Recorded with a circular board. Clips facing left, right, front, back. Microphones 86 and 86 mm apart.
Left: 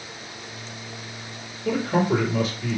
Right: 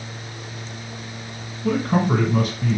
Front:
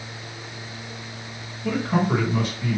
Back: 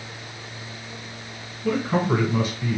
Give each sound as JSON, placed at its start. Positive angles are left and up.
{"t": 1.6, "sound": "a man speaking", "azimuth_deg": -95, "distance_m": 1.8}